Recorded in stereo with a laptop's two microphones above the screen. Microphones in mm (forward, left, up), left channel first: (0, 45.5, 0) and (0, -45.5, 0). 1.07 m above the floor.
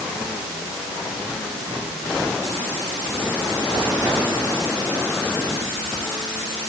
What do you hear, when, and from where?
Only background noise.